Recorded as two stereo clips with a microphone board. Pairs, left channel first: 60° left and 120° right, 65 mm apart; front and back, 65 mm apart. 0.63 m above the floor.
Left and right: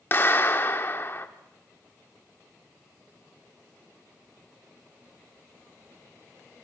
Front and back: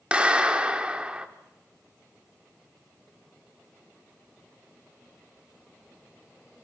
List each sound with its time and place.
0.1 s a clap: 110° left, 1.1 m